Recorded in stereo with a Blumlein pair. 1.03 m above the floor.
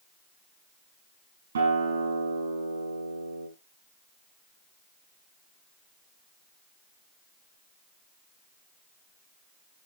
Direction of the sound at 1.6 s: 70° right.